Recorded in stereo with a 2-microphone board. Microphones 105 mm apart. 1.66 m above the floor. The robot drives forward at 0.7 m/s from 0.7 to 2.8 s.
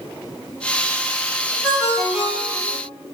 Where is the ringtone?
5° right (ahead or behind), 1.8 m.